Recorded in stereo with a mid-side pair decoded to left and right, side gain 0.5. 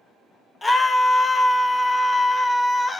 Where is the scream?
20° left, 1.0 m.